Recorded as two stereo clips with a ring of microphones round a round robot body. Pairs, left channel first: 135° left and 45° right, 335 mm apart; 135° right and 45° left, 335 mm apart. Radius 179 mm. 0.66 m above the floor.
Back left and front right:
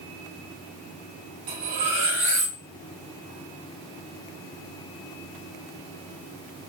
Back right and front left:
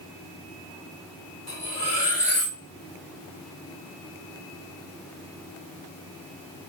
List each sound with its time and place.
1.5 s cutlery clinking: 60° right, 1.3 m